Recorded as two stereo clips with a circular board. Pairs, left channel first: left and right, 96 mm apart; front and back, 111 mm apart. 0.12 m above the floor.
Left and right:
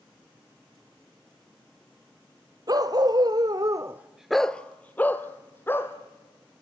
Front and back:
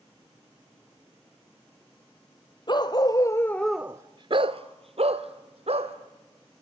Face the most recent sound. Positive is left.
turn(degrees=155)